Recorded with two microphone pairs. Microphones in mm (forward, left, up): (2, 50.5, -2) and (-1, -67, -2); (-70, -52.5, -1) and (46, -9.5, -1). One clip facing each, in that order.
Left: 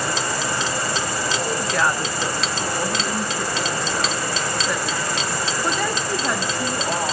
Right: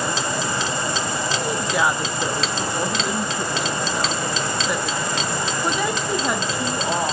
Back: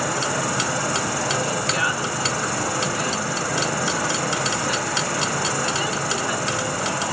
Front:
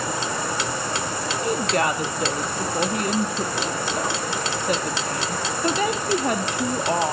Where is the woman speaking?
10° right, 1.7 m.